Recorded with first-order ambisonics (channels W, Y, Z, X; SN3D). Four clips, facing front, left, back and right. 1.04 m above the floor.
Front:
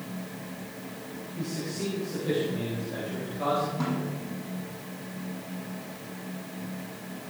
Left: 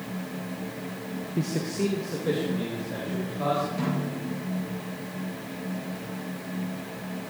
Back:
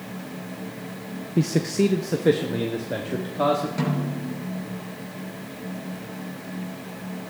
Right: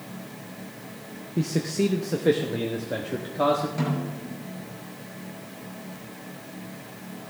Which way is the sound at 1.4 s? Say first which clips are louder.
Right 3 dB, back 12 dB; 175° right.